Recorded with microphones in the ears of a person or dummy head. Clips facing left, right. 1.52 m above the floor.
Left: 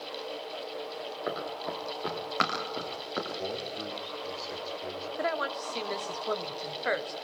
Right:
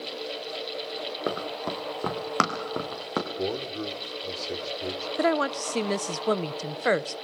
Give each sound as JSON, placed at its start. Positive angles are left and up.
{"t": 1.3, "sound": "running footsteps", "side_deg": -60, "distance_m": 4.0}
{"t": 3.4, "sound": "a man speaking", "side_deg": -65, "distance_m": 3.5}
{"t": 5.2, "sound": "a woman speaking", "side_deg": -50, "distance_m": 0.7}